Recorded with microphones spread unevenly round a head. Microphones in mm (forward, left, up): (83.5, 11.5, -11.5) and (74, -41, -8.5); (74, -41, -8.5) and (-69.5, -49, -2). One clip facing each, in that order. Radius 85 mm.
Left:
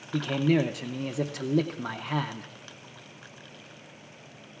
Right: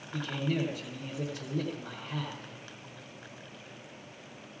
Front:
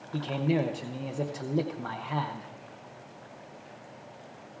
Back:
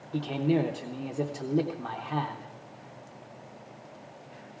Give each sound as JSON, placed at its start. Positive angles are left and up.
{"t": 0.1, "sound": "a man speaking", "azimuth_deg": 95, "distance_m": 0.7}